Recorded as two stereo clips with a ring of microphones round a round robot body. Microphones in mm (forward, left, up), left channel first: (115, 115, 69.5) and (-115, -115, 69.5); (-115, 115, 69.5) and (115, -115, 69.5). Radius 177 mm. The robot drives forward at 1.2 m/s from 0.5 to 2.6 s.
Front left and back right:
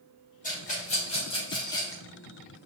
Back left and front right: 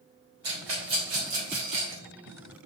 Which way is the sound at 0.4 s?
20° right.